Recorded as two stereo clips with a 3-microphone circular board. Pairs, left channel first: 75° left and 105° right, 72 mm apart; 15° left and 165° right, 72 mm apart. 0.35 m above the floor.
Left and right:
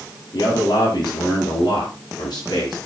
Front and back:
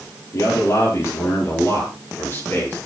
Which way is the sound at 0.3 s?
60° left.